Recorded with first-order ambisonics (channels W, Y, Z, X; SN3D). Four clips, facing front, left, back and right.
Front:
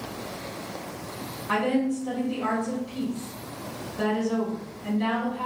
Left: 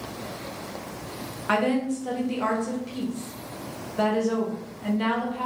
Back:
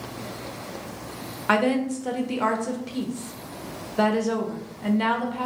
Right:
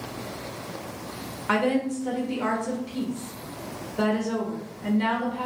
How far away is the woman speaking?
About 0.6 m.